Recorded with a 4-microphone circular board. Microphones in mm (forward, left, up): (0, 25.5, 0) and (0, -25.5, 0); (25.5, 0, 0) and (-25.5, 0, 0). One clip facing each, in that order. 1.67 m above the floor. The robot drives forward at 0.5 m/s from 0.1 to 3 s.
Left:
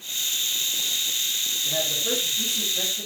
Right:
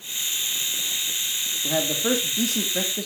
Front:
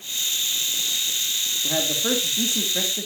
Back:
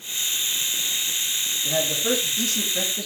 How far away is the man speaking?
About 3 m.